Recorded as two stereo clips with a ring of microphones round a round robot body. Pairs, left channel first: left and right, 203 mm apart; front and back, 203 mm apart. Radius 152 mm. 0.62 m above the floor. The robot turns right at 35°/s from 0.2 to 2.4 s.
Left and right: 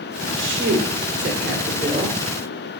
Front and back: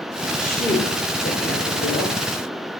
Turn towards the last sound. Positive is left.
turn(degrees=-25)